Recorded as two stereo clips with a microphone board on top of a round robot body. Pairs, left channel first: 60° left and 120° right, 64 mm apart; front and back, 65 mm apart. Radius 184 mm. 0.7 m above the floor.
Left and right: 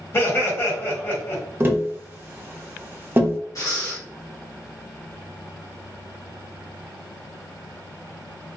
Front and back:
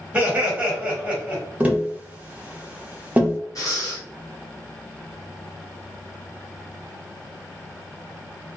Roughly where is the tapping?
Behind right.